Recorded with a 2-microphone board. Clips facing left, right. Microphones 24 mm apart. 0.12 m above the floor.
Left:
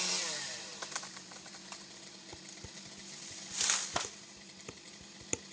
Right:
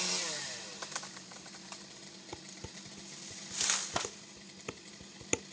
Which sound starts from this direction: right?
Dishes clattering, at 2.3 s.